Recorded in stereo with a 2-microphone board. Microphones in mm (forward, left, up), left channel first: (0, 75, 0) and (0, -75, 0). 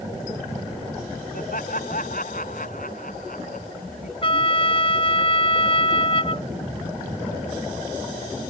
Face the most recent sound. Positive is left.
turn(degrees=40)  # may be behind; listen again after turning